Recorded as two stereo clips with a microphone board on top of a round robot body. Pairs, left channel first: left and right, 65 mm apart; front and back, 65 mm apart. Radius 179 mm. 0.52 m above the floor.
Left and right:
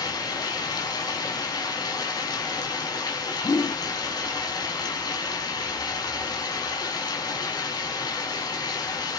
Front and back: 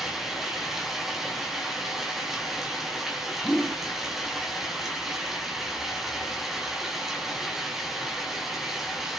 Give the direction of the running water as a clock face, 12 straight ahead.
9 o'clock.